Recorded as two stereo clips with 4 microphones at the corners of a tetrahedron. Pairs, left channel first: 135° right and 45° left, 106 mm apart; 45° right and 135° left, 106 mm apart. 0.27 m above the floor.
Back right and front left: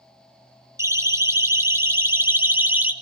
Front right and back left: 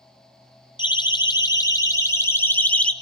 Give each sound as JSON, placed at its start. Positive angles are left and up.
{"t": 0.8, "sound": "a siren", "azimuth_deg": -15, "distance_m": 3.0}